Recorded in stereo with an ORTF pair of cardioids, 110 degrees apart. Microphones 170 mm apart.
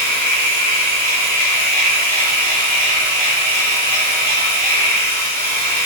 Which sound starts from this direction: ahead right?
A machine running, at 0.0 s.